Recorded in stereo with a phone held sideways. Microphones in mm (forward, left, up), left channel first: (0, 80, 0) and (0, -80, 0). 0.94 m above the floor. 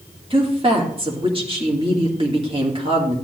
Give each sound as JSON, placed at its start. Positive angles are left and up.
{"t": 0.3, "sound": "a woman speaking", "side_deg": -35, "distance_m": 1.9}